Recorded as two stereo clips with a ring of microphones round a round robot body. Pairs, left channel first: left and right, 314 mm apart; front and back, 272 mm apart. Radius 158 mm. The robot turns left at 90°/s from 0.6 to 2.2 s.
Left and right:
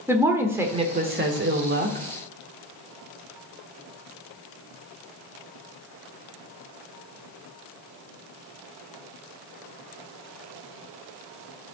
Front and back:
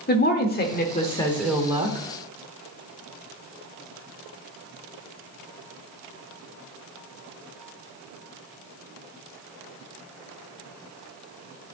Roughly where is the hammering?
No hammering in this recording.